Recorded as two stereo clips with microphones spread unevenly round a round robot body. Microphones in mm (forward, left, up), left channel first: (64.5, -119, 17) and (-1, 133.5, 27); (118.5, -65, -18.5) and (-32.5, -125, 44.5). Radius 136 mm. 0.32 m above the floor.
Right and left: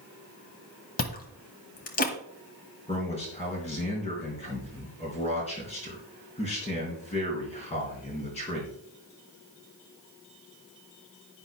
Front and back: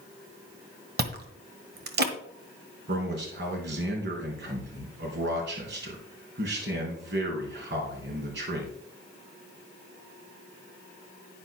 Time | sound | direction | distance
1.0 | chewing | 130° right | 1.6 m
2.9 | a man speaking | 140° right | 3.5 m